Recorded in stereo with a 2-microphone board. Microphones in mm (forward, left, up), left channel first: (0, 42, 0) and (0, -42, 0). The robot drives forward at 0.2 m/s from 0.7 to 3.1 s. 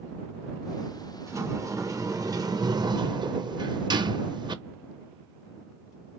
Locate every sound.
1.3 s a sliding door: 35° right (ahead or behind), 0.7 m; by 4.6 s 60° right (ahead or behind), 0.5 m